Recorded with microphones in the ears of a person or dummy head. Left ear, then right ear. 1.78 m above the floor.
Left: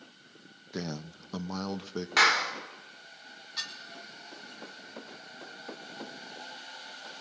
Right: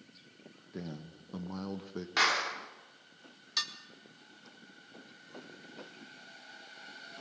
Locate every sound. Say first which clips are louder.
0.7 s a man speaking: left 7 dB; 50° left (ahead or behind), 1.0 m; by 2.1 s 25° left (ahead or behind), 1.4 m
2.2 s a clap: left 5 dB; 25° left (ahead or behind), 4 m
3.6 s dishes clattering: right 3 dB; 55° right (ahead or behind), 2.5 m